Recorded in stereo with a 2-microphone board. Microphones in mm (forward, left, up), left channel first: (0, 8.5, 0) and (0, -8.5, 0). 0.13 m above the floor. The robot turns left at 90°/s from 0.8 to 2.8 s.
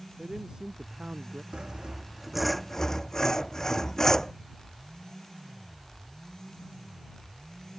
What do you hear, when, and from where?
0.2 s a man speaking: 50° right; by 1.4 s 110° right
1.5 s sawing: 95° right; by 4.3 s 150° left